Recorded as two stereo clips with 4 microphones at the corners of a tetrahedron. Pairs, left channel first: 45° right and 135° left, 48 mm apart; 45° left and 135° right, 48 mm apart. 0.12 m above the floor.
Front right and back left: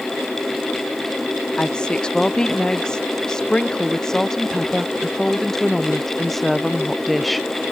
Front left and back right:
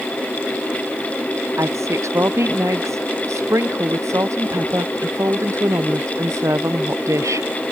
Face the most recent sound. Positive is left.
turn(degrees=-135)